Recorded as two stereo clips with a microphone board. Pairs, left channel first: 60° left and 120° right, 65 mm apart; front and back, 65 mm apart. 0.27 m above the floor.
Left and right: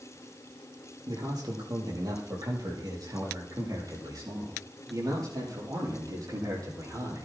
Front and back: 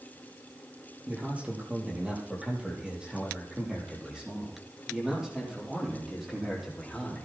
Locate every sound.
1.1 s a man speaking: 110° right, 5.5 m; by 7.2 s 90° right, 7.5 m